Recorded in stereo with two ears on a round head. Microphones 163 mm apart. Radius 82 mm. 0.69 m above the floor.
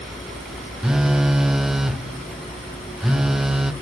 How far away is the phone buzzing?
About 0.6 m.